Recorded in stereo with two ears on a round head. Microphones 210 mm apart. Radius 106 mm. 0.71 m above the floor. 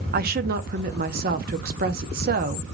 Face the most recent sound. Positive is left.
turn(degrees=-45)  # may be behind; listen again after turning